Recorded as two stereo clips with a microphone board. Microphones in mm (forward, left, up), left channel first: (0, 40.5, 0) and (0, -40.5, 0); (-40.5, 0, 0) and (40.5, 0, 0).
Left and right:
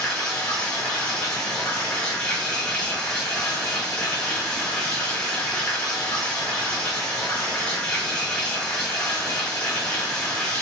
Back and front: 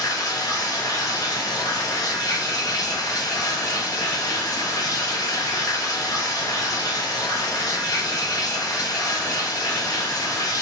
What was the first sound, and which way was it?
Running water, 165° left.